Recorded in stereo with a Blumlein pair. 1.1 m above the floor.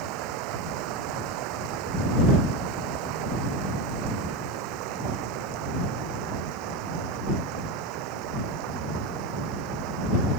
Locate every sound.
0.0 s running water: 40° right